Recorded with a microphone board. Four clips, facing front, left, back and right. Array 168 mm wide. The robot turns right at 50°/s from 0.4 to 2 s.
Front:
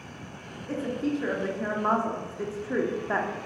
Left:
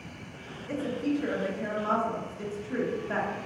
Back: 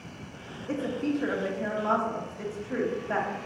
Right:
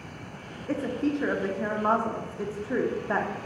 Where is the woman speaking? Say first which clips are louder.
Right 2 dB, even; 115° right, 0.9 m; by 3.4 s 50° right, 0.9 m.